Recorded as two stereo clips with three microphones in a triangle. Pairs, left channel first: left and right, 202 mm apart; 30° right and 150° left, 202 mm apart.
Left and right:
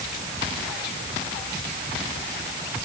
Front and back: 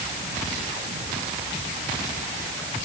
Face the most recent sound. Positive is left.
No sound to turn to.